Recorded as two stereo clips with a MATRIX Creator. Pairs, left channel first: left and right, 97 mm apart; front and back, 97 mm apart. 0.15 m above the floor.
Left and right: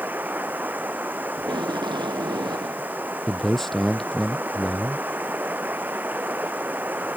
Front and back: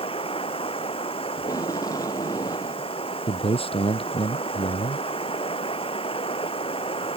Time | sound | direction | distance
0.0 | running water | 20° right | ?
1.4 | tape being pulled | 50° right | ?
3.3 | a man speaking | 5° left | ?